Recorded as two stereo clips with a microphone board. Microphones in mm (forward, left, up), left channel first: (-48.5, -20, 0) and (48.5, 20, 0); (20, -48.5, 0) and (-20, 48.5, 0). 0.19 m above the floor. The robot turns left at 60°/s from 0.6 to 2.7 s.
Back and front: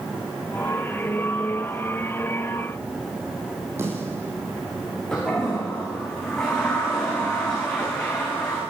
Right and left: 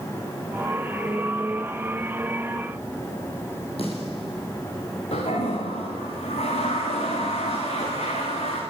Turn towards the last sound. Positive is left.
turn(degrees=-75)